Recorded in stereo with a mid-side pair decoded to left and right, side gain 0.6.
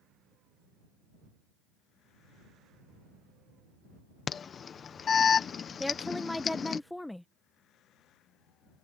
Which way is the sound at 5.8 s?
5° left.